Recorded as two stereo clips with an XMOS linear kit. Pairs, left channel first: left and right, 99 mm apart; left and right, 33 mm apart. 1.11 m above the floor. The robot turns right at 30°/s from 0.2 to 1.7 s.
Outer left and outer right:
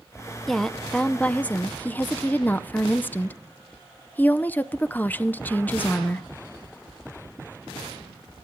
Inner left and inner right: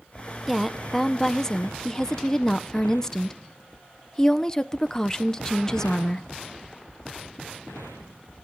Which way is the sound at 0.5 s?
Centre (ahead or behind).